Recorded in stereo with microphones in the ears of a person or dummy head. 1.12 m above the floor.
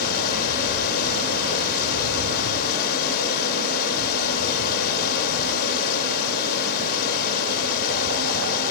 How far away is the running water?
About 2.5 m.